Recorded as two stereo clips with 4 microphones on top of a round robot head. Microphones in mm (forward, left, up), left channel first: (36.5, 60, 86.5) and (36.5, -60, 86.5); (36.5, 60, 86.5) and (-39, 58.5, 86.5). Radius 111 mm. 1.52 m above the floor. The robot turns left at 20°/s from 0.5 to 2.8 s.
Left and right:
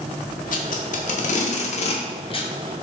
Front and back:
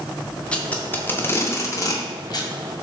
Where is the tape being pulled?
80° left, 0.6 m; by 2.5 s 40° left, 0.6 m.